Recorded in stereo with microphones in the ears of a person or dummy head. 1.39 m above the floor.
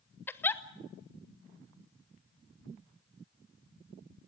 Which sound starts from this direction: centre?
A giggle, at 0.3 s.